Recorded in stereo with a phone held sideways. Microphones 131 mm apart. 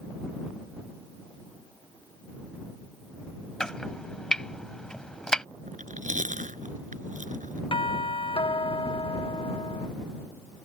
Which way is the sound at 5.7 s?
75° right (ahead or behind).